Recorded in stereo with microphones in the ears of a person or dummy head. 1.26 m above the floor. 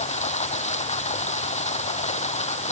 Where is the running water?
30° left (ahead or behind).